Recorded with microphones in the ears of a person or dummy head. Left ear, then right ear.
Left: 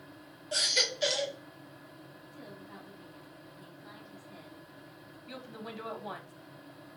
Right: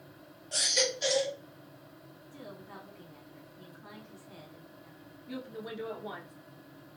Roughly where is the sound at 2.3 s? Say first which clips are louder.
Right 3 dB; right.